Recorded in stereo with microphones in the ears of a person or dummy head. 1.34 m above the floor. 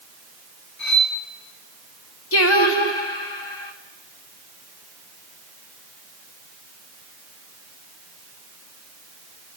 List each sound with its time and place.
0.8 s cutlery clinking: 55° left (ahead or behind), 4.5 m
2.3 s singing: 70° left (ahead or behind), 1.8 m